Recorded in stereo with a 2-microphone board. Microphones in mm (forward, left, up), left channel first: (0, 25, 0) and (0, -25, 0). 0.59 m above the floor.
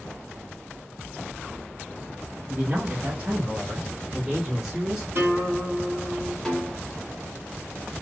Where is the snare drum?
Centre (ahead or behind), 1.5 m.